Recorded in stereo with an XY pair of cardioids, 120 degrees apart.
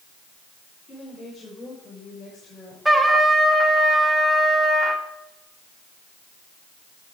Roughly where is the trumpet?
Ahead.